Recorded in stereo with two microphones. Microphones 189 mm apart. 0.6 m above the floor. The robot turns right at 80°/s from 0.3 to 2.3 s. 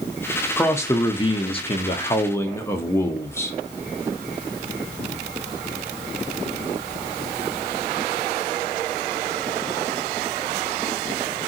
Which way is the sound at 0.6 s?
10° left.